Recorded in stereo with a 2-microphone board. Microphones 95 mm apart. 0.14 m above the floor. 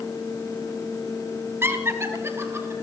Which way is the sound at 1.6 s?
25° right (ahead or behind).